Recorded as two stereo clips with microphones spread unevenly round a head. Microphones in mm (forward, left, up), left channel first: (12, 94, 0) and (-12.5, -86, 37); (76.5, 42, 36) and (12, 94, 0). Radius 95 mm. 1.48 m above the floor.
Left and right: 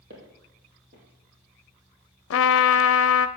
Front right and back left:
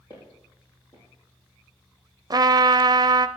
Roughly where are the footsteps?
Right.